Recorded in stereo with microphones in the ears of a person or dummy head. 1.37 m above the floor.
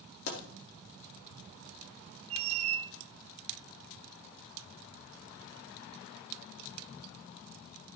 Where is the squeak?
35° right (ahead or behind), 0.6 m.